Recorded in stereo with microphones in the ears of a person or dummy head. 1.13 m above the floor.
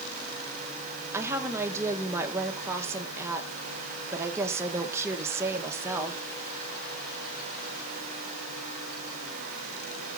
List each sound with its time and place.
1.1 s a woman speaking: 10° right (ahead or behind), 1.2 m